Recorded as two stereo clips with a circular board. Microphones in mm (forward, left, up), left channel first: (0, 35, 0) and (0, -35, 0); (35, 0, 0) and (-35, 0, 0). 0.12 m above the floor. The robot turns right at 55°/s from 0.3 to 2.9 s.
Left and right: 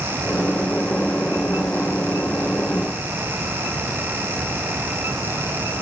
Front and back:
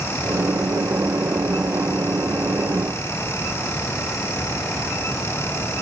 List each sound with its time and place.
Only background noise.